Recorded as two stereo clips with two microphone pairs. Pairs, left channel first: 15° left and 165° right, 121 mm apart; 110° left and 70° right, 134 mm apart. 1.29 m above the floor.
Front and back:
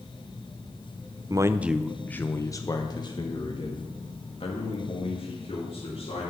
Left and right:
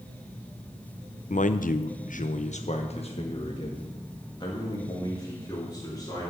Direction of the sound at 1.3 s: 135° left.